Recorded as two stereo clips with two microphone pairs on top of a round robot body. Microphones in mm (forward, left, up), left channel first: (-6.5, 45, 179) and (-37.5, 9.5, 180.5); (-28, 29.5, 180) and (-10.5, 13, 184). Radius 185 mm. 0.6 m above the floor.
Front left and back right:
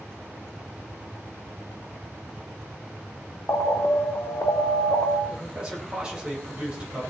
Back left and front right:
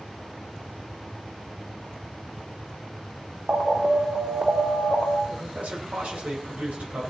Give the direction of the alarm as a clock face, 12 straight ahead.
11 o'clock.